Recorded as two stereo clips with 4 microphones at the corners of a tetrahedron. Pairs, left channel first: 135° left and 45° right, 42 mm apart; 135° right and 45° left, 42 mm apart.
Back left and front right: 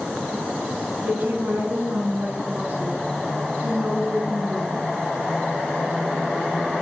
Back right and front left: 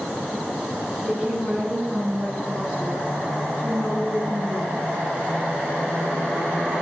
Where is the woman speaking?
30° right, 4 m; by 5.0 s 20° right, 7 m.